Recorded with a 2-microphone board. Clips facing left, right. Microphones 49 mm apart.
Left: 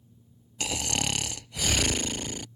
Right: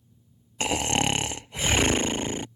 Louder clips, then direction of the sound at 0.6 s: Right 6 dB; 35° right (ahead or behind).